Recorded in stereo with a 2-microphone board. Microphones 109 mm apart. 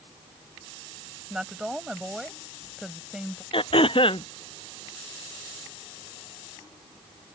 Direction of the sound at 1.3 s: 5° right (ahead or behind).